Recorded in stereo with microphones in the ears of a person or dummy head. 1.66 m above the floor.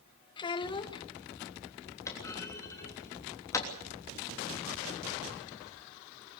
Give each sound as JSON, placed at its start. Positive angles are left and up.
{"t": 0.4, "sound": "a child speaking", "side_deg": 25, "distance_m": 0.9}
{"t": 2.1, "sound": "a clunk", "side_deg": 15, "distance_m": 3.0}